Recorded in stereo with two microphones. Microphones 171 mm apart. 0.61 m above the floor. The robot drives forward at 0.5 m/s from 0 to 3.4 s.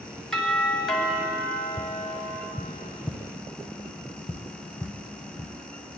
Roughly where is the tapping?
Centre.